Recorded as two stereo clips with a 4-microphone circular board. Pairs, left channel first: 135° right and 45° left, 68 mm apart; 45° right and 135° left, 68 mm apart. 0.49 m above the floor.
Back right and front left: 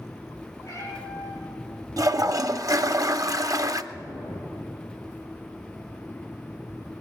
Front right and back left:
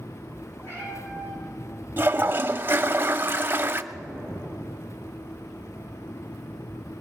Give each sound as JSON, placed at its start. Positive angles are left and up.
{"t": 0.6, "sound": "a cat meowing", "azimuth_deg": -85, "distance_m": 7.5}
{"t": 2.0, "sound": "a toilet flushing", "azimuth_deg": 80, "distance_m": 0.6}
{"t": 3.9, "sound": "an explosion", "azimuth_deg": -80, "distance_m": 4.0}